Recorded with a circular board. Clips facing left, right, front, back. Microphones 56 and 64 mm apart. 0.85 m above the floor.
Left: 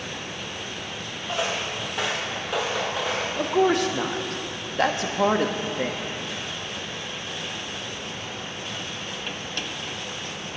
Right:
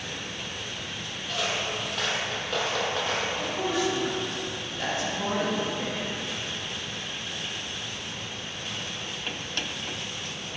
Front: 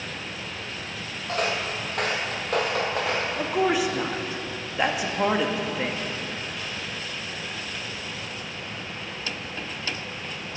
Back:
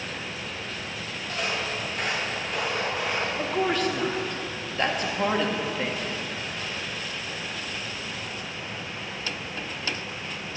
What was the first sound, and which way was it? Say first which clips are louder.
Footsteps: left 2 dB, front 3 dB; 30° left.